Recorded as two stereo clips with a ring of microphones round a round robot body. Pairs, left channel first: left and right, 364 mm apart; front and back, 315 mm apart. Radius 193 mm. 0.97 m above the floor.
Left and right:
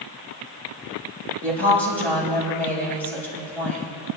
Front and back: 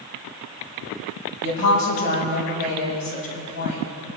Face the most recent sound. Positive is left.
turn(degrees=5)